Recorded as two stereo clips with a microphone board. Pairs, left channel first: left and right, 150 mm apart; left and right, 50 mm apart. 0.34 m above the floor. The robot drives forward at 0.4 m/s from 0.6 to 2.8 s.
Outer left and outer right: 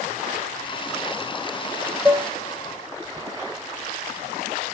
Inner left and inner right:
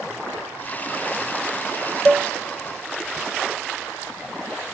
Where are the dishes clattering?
10° right (ahead or behind), 0.6 m.